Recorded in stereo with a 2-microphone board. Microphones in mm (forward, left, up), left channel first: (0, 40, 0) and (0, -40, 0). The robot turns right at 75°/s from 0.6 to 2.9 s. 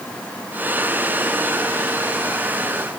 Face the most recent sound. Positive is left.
No sound to turn to.